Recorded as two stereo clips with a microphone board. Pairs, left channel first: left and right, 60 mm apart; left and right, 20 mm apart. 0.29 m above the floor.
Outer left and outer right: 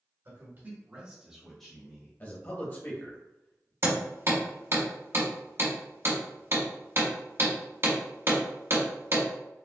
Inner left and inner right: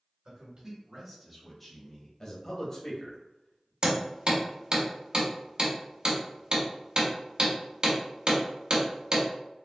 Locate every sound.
0.2 s a man speaking: 45° right (ahead or behind), 1.7 m; by 2.1 s 25° left (ahead or behind), 1.5 m
2.2 s a man speaking: 35° left (ahead or behind), 1.0 m
3.8 s hammering: 45° right (ahead or behind), 1.6 m